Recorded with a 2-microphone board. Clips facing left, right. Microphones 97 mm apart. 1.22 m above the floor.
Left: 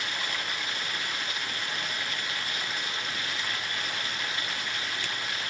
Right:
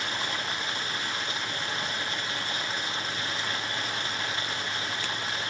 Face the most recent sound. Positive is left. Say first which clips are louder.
# right 2 dB
turn(degrees=-30)  # may be behind; listen again after turning